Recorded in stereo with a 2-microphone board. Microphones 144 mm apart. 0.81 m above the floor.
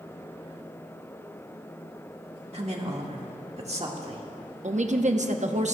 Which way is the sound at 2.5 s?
45° right (ahead or behind).